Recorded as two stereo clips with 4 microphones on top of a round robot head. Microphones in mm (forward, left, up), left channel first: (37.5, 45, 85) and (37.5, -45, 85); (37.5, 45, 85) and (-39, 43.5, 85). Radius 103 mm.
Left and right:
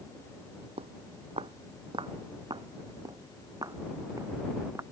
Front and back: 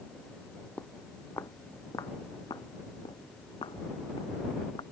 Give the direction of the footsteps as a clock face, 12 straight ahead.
3 o'clock.